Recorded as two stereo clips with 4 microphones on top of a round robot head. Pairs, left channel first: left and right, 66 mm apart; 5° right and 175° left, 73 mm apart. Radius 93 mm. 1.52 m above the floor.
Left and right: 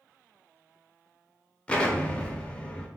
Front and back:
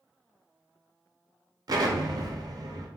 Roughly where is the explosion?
Behind.